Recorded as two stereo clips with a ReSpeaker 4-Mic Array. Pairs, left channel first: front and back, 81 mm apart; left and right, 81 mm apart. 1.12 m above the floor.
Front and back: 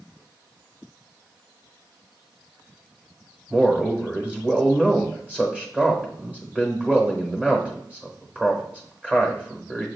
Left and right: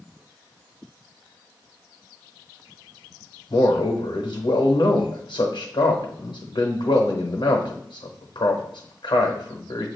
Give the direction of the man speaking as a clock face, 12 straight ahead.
9 o'clock.